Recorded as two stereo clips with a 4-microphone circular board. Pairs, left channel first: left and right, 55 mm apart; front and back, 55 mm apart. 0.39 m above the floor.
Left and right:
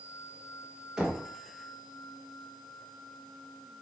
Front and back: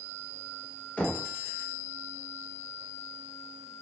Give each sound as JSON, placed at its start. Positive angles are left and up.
{"t": 1.0, "sound": "knocking", "azimuth_deg": -25, "distance_m": 0.7}